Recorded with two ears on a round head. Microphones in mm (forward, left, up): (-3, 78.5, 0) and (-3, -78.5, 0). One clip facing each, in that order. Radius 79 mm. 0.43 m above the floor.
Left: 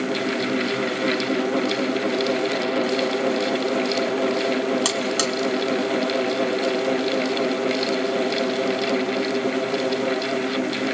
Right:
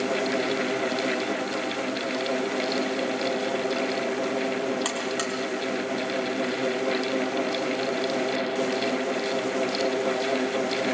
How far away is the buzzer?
About 4 m.